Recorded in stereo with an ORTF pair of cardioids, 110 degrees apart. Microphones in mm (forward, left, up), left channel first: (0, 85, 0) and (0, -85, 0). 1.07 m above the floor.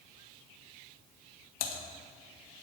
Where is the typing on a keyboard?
60° left, 1.4 m.